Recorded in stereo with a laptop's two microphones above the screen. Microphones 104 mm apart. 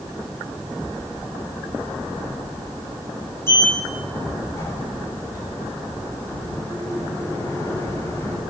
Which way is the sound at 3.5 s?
25° left (ahead or behind).